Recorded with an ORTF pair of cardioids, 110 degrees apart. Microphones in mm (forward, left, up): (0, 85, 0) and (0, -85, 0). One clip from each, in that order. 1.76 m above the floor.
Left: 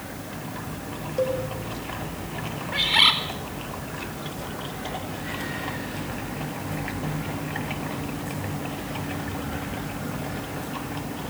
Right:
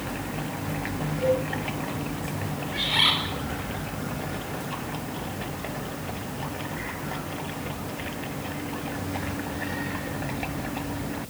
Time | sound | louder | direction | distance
1.2 | a cowbell | right 1 dB | 65° left | 3.5 m
2.7 | a bird | left 4 dB | 30° left | 4.5 m